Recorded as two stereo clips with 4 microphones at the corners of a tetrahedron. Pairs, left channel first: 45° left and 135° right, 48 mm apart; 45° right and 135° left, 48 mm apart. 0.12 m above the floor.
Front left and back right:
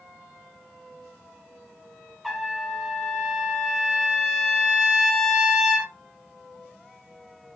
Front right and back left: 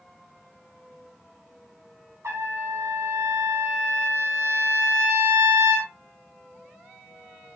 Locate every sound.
2.2 s a trumpet: 135° left, 3 m